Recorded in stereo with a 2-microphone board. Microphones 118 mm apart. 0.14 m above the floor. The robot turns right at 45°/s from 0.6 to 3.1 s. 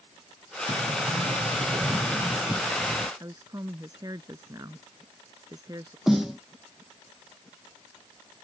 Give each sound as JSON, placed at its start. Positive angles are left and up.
{"t": 0.7, "sound": "a sliding door", "azimuth_deg": -95}
{"t": 3.2, "sound": "a woman speaking", "side_deg": -35}
{"t": 6.1, "sound": "a snare drum", "side_deg": -5}